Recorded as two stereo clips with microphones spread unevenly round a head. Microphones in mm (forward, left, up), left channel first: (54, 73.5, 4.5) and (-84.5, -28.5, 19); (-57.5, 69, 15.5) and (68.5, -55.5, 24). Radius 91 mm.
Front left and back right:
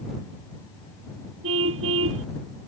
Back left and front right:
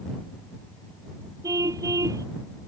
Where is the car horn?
115° right.